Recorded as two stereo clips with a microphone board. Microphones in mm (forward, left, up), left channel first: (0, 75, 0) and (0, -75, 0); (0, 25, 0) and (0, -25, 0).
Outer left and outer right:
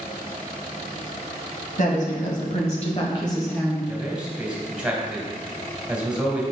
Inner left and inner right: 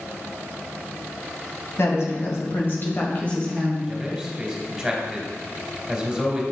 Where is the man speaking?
5° right (ahead or behind), 2 m.